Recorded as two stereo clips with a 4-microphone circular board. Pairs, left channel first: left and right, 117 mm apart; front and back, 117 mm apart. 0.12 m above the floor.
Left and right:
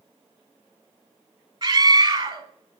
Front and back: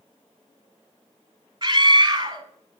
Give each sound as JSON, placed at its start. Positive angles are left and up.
{"t": 1.6, "sound": "a scream", "azimuth_deg": -130, "distance_m": 2.0}